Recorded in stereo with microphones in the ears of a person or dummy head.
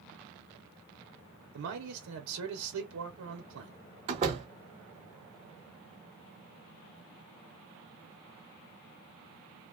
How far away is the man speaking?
About 0.7 m.